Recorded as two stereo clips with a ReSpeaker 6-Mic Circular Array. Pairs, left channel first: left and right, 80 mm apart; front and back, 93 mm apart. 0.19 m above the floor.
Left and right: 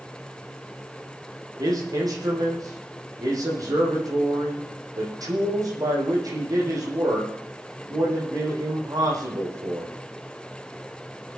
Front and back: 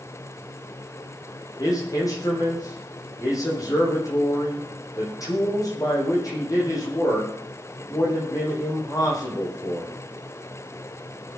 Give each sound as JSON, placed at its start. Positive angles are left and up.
{"t": 1.6, "sound": "a man speaking", "azimuth_deg": -50, "distance_m": 8.0}